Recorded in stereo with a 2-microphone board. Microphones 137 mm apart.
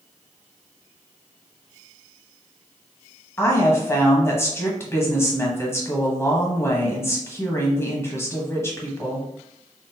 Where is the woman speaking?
20° left (ahead or behind), 1.1 m.